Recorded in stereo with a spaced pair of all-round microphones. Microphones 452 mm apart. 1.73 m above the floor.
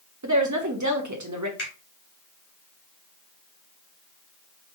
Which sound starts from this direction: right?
A woman speaking, at 0.2 s.